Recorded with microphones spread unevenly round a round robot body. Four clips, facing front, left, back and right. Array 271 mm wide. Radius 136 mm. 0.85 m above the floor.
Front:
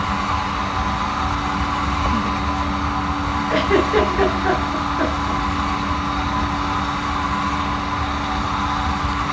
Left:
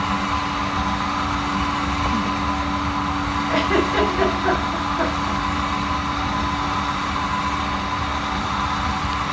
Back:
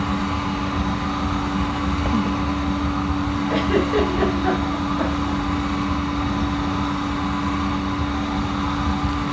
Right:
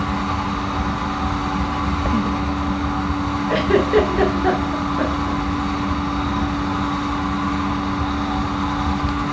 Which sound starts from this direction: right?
A giggle, at 3.5 s.